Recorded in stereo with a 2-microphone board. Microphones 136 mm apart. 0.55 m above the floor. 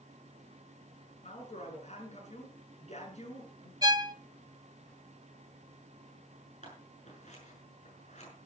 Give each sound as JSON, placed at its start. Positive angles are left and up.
{"t": 1.2, "sound": "a woman speaking", "side_deg": 55, "distance_m": 6.0}
{"t": 3.8, "sound": "a violin", "side_deg": -30, "distance_m": 0.6}
{"t": 6.6, "sound": "scissors", "side_deg": 60, "distance_m": 6.5}